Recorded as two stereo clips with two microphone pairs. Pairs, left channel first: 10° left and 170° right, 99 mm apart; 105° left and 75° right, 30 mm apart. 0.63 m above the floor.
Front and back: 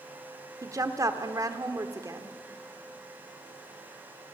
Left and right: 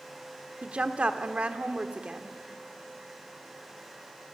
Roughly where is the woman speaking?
Behind right.